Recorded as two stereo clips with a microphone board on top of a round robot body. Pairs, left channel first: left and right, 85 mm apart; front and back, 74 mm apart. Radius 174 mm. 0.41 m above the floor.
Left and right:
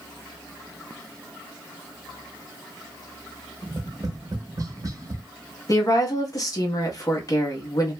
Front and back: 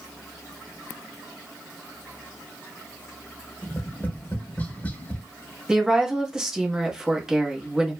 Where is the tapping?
60° right, 0.7 m.